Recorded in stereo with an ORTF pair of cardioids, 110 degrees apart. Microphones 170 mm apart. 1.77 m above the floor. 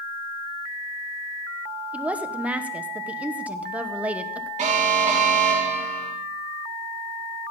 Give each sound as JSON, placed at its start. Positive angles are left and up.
{"t": 1.9, "sound": "a woman speaking", "azimuth_deg": -10, "distance_m": 1.3}
{"t": 4.6, "sound": "an alarm", "azimuth_deg": -45, "distance_m": 3.5}